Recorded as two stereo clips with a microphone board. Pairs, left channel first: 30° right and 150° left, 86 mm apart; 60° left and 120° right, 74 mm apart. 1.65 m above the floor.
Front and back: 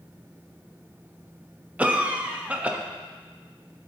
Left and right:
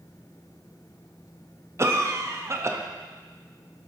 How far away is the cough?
About 0.5 m.